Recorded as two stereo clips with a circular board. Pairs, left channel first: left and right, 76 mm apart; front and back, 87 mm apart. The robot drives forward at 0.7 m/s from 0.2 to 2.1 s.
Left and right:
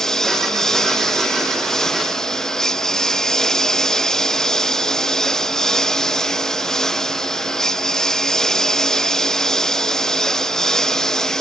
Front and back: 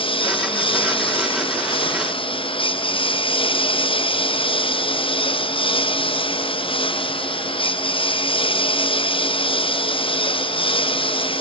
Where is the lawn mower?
5° left.